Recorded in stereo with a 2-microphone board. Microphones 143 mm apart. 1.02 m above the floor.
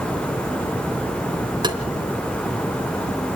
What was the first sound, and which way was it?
Tapping, 30° right (ahead or behind).